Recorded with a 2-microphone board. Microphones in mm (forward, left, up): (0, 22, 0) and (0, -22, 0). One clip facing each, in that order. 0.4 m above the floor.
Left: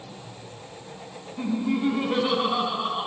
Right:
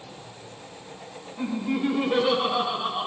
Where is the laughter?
5° left (ahead or behind), 3 m.